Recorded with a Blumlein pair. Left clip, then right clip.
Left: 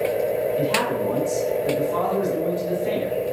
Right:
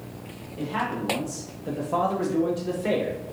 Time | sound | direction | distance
0.6 | a man speaking | 70° left | 0.8 m